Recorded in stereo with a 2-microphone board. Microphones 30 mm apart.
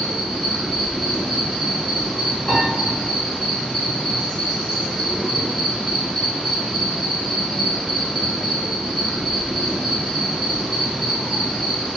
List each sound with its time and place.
0.0 s an insect: 20° left (ahead or behind), 1.5 m
2.5 s a piano: 40° left (ahead or behind), 1.9 m